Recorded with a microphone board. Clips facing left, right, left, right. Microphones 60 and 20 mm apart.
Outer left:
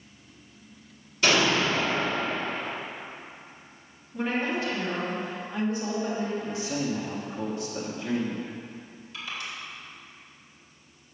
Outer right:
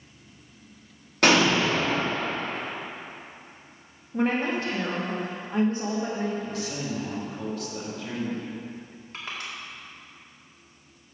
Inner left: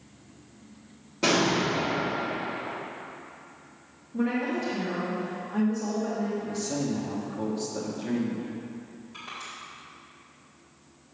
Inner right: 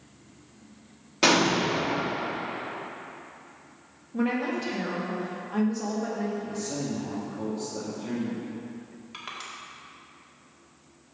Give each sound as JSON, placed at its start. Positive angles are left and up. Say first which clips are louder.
{"t": 1.2, "sound": "an explosion", "louder": "outer right 3 dB, inner right 2 dB", "side_deg": -65, "distance_m": 1.4}
{"t": 4.1, "sound": "a woman speaking", "louder": "outer right 3 dB, even", "side_deg": -40, "distance_m": 1.4}
{"t": 6.4, "sound": "a man speaking", "louder": "outer left 2 dB, inner left 2 dB", "side_deg": 25, "distance_m": 1.6}
{"t": 9.1, "sound": "crushing", "louder": "even, inner right 1 dB", "side_deg": -50, "distance_m": 1.9}